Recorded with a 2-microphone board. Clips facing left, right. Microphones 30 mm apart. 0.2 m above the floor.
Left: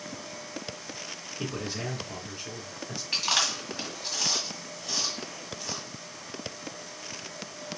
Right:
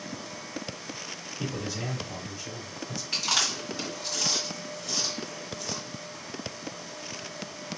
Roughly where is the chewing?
Centre.